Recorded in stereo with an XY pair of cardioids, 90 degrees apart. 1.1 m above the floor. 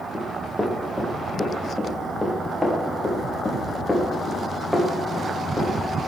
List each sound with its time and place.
0.1 s running footsteps: 5° left, 5 m